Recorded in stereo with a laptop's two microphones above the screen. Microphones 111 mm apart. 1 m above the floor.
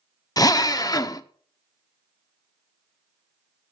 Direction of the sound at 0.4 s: 35° left (ahead or behind).